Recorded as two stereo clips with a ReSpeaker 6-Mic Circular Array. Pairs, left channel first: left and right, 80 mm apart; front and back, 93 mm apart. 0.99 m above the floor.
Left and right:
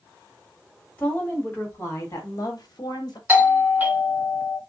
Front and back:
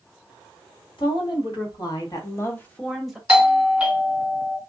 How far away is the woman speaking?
About 1.9 m.